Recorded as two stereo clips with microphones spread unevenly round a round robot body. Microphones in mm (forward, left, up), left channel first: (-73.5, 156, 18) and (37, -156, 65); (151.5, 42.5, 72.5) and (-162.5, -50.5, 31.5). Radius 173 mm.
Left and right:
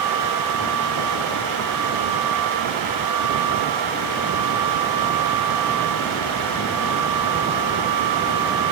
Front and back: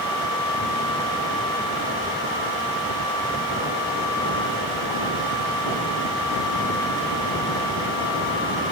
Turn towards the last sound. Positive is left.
No sound to turn to.